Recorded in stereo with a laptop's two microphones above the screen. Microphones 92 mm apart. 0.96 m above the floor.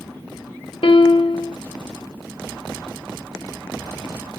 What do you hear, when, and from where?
0.8 s a piano: 75° left (ahead or behind), 0.8 m